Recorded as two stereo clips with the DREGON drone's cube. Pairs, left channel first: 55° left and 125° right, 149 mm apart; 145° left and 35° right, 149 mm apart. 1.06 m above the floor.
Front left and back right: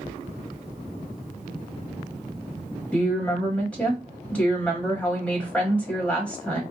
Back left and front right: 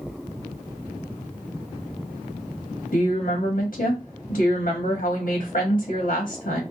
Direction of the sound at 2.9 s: 140° left.